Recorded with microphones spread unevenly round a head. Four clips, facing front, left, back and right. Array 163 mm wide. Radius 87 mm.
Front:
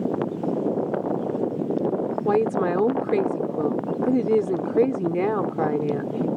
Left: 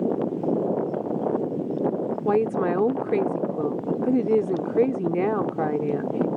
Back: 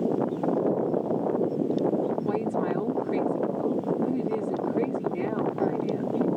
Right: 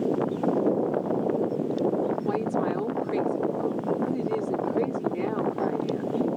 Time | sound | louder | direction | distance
2.2 | a woman speaking | left 4 dB, front 6 dB | 40° left | ?